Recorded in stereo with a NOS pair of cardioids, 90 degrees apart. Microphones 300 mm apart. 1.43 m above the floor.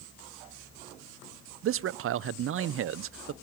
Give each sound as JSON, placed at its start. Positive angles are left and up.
{"t": 1.6, "sound": "a man speaking", "azimuth_deg": -50, "distance_m": 0.5}